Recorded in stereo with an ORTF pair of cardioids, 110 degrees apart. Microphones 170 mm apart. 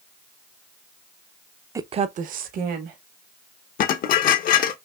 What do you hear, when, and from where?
1.8 s a woman speaking: 15° right, 0.5 m; by 3.0 s 70° right, 1.7 m
3.8 s dishes clattering: 65° left, 0.9 m